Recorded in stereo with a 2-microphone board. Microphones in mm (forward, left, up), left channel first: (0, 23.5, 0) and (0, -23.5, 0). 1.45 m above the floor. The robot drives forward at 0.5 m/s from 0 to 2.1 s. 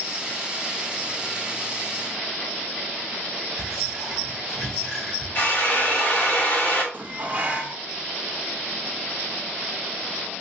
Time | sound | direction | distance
3.6 | whispering | 5° left (ahead or behind) | 1.8 m
5.3 | a drill | 40° left (ahead or behind) | 1.5 m
6.9 | dishes clattering | 35° right (ahead or behind) | 0.8 m